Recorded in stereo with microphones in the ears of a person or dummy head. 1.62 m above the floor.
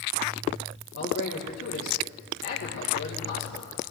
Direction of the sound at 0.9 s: 85° left.